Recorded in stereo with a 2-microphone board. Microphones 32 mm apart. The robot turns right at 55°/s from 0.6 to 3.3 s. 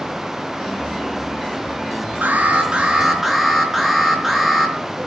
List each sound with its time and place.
2.2 s an alarm: 60° right, 4 m; by 4.8 s straight ahead, 4 m